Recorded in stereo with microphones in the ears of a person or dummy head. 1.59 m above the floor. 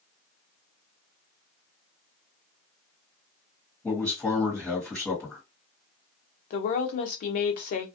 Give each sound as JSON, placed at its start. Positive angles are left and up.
{"t": 3.8, "sound": "a man speaking", "side_deg": 10, "distance_m": 1.6}
{"t": 6.5, "sound": "a woman speaking", "side_deg": 50, "distance_m": 0.6}